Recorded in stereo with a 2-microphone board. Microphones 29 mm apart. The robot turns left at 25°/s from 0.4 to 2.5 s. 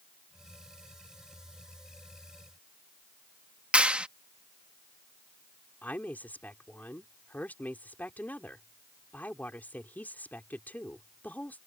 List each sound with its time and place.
3.7 s a clap: 45° right (ahead or behind)
5.8 s a woman speaking: 75° left (ahead or behind)